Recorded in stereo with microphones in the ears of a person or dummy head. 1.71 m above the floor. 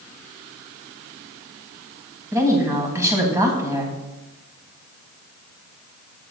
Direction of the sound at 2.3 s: 15° right (ahead or behind).